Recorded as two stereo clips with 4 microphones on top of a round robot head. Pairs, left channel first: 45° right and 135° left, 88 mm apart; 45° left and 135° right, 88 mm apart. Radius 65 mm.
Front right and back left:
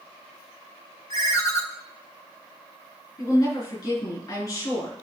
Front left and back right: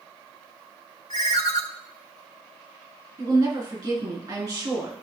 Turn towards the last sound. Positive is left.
turn(degrees=-95)